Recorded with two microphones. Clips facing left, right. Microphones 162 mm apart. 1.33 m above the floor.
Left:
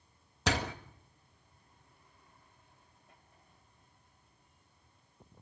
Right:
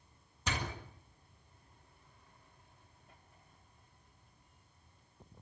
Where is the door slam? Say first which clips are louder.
Left 7 dB; 65° left (ahead or behind), 1.7 m.